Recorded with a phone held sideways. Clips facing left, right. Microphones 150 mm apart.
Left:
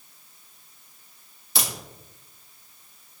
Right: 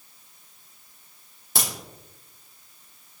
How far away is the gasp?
I don't hear a gasp.